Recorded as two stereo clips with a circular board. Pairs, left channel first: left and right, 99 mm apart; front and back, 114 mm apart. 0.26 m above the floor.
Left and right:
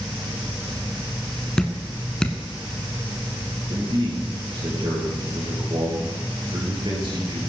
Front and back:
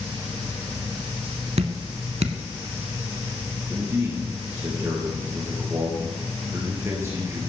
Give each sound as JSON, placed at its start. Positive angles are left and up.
{"t": 1.6, "sound": "dripping", "azimuth_deg": 170, "distance_m": 0.9}
{"t": 3.7, "sound": "a man speaking", "azimuth_deg": -115, "distance_m": 4.0}